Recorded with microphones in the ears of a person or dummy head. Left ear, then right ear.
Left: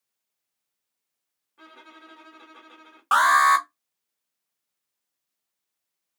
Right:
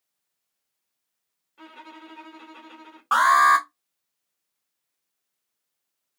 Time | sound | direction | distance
1.6 | a violin | 15° right (ahead or behind) | 1.2 m
3.1 | an alarm | 25° left (ahead or behind) | 0.8 m